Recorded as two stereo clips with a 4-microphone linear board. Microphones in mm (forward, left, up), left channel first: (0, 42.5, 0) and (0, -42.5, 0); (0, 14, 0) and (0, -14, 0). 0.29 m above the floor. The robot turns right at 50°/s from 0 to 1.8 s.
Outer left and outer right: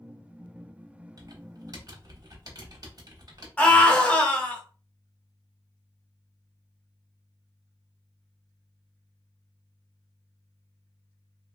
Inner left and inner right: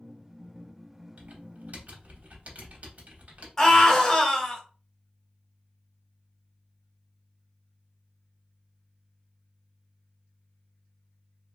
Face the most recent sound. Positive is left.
turn(degrees=15)  # may be behind; listen again after turning